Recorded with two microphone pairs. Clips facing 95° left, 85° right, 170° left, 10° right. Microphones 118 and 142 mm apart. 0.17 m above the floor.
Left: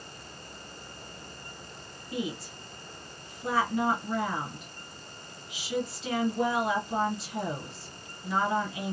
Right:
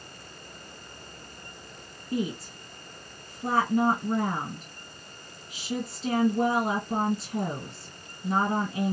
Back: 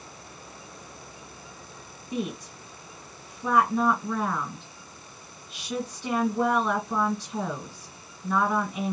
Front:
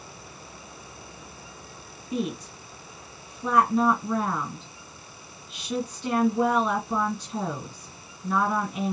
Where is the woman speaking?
100° right, 1.6 m.